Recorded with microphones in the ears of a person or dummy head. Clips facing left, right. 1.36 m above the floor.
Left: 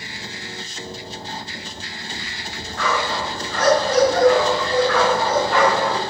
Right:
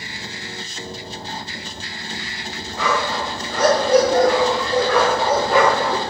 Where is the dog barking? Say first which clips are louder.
Right 1 dB; 15° right (ahead or behind), 8 m; by 6.0 s 10° right (ahead or behind), 6.5 m.